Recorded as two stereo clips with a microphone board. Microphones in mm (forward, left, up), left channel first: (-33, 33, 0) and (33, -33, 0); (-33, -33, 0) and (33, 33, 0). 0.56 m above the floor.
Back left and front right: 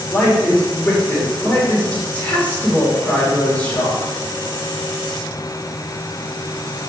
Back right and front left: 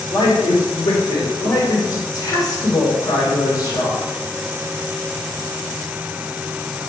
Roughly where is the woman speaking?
Behind right.